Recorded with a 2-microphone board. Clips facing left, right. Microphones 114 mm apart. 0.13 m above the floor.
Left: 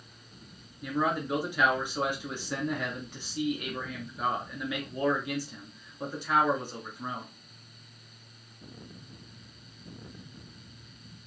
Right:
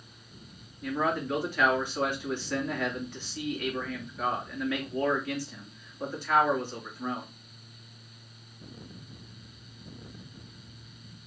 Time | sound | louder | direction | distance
0.8 | a man speaking | even | 15° left (ahead or behind) | 1.6 m